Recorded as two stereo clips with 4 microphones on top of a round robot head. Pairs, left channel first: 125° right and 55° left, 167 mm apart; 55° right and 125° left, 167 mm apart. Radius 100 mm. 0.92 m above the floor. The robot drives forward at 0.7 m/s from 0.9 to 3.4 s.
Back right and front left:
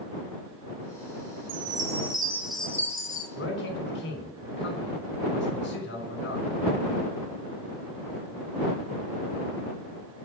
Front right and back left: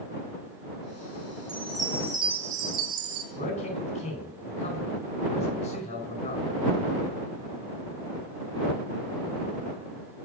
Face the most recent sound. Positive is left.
turn(degrees=-105)